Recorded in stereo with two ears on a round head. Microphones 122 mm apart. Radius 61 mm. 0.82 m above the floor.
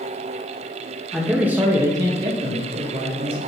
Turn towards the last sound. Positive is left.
turn(degrees=-45)  # may be behind; listen again after turning